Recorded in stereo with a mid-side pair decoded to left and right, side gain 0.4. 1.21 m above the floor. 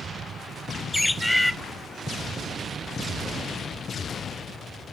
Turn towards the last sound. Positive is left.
turn(degrees=10)